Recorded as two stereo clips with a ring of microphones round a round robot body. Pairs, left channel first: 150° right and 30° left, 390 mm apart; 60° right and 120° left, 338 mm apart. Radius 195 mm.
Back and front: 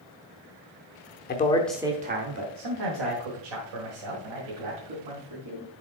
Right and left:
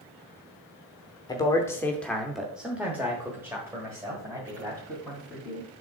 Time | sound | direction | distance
1.3 | a man speaking | 125° right | 0.8 m